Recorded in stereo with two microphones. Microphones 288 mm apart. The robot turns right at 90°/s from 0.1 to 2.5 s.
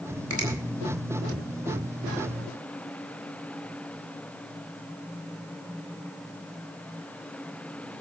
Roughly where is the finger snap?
Right.